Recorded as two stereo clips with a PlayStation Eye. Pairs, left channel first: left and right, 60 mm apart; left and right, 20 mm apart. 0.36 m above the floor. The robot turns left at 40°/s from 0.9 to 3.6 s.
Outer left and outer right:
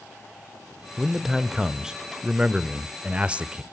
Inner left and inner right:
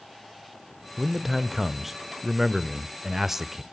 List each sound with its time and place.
1.0 s a man speaking: centre (ahead or behind), 0.8 m; by 3.6 s 20° right (ahead or behind), 0.8 m